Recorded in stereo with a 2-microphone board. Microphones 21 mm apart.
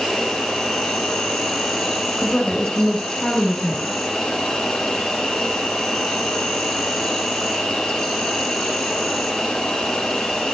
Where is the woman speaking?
40° left (ahead or behind), 2 m.